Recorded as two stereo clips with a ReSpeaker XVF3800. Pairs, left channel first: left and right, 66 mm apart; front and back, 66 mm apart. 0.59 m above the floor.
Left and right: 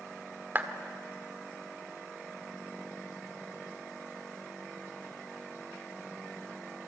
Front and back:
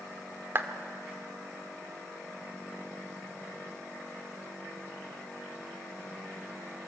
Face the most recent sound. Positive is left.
turn(degrees=-135)